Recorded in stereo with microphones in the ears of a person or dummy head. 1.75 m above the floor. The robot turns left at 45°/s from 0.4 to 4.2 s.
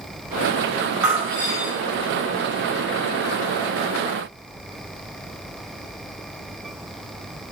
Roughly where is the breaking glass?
Behind.